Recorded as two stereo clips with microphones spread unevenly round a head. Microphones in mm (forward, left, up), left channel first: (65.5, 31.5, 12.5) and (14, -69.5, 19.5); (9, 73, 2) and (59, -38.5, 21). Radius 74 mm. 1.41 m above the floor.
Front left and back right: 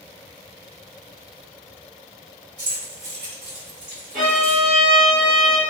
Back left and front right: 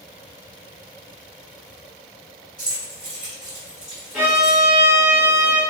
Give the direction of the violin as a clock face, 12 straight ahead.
5 o'clock.